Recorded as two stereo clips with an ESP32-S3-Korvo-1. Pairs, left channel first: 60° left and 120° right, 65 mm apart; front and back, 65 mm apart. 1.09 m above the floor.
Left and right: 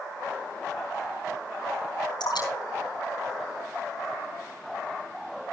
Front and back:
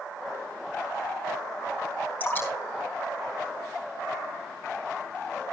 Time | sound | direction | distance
2.2 | dripping | 60° left | 5.5 m